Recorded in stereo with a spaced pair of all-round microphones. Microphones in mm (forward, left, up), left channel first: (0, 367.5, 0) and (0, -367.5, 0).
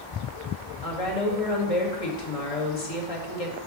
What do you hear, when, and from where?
0.8 s a woman speaking: 50° left (ahead or behind), 2 m